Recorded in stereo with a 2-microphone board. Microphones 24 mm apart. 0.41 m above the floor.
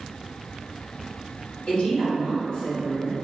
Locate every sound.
1.7 s a woman speaking: 55° left (ahead or behind), 1.4 m